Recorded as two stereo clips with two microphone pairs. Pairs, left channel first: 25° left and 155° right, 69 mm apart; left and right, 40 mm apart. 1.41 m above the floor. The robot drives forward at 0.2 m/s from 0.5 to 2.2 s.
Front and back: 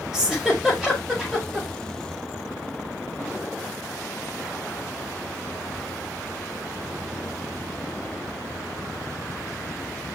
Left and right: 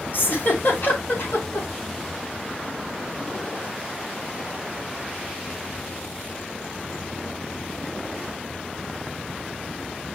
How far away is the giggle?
About 4 m.